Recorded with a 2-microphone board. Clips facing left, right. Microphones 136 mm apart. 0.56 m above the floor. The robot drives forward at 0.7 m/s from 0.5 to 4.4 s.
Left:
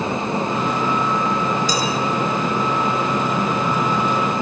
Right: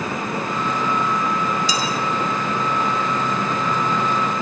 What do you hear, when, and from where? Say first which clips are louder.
1.7 s dishes clattering: left 2 dB; 45° left (ahead or behind), 7 m